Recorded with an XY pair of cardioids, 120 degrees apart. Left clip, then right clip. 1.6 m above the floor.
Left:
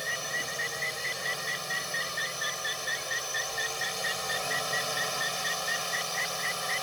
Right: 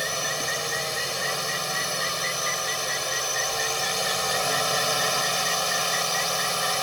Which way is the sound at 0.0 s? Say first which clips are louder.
Right 5 dB; 40° right.